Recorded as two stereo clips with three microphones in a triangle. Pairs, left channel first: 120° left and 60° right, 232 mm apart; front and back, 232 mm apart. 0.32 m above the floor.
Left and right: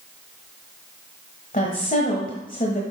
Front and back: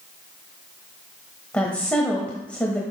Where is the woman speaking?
85° left, 1.2 m.